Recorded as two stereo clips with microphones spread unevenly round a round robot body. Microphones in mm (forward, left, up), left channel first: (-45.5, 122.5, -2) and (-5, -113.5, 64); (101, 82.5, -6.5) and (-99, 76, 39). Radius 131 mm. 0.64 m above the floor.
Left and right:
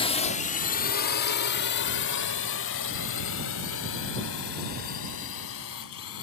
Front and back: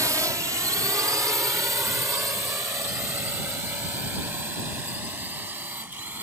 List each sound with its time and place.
0.0 s a drone: 100° left